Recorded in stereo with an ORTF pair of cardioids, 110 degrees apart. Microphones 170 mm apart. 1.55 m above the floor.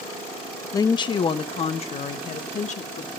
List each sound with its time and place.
0.7 s a woman speaking: 20° left, 0.9 m; by 3.1 s 45° left, 2.5 m